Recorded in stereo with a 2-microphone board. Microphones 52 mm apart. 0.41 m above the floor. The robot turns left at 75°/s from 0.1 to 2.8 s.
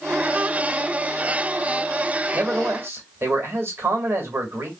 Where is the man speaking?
40° right, 1.7 m; by 4.7 s 75° right, 1.7 m.